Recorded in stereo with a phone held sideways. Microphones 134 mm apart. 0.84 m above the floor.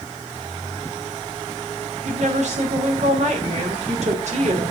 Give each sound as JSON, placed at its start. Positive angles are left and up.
{"t": 2.0, "sound": "a woman speaking", "side_deg": -55, "distance_m": 2.5}